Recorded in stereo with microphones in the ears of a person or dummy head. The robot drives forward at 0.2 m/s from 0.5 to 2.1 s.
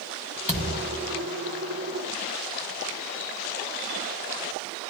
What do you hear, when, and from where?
0.5 s a thud: 20° left (ahead or behind), 0.9 m